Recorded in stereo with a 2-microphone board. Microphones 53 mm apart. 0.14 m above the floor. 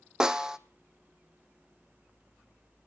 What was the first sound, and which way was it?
A snare drum, 15° right (ahead or behind).